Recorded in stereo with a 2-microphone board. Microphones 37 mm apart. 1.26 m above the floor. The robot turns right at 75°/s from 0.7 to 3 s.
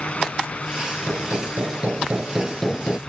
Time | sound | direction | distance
1.1 | hammering | 105° right | ?